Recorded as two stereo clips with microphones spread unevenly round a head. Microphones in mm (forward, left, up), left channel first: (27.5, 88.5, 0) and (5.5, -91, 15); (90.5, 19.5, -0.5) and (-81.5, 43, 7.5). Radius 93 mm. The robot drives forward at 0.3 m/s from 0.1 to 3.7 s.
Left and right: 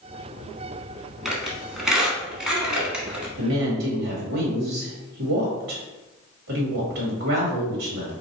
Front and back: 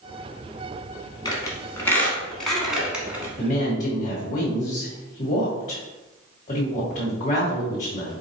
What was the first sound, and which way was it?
A squeak, 25° right.